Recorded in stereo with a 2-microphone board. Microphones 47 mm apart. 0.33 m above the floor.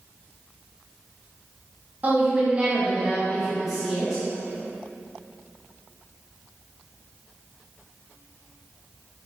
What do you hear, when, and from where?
2.0 s a woman speaking: 35° right (ahead or behind), 1.9 m; by 4.2 s centre (ahead or behind), 2 m